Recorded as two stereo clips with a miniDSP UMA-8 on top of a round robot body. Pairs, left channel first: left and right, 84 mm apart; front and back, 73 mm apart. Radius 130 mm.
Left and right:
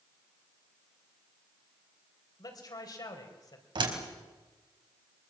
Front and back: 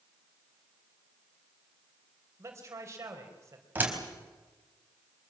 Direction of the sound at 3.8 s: 115° right.